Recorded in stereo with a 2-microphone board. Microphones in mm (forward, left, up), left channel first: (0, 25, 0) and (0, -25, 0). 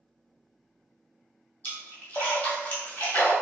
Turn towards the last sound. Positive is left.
turn(degrees=40)  # may be behind; listen again after turning